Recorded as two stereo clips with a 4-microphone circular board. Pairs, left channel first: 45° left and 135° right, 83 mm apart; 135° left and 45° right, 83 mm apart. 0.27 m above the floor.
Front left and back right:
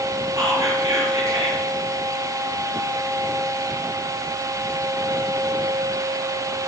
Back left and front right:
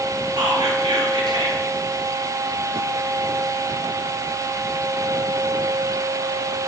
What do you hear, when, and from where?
0.4 s whispering: 85° right, 6.5 m